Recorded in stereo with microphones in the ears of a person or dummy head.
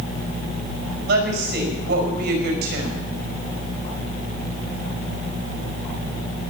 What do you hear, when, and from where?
1.1 s a woman speaking: 70° right (ahead or behind), 5 m